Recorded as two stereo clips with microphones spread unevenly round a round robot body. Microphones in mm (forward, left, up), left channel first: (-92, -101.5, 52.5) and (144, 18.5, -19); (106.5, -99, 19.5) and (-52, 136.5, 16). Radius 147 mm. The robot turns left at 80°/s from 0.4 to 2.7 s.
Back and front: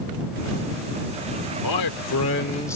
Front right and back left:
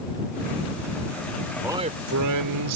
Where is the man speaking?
150° right; by 2.8 s 125° left.